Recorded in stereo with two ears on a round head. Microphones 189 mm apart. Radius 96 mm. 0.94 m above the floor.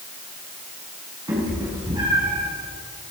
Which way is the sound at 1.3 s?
20° right (ahead or behind).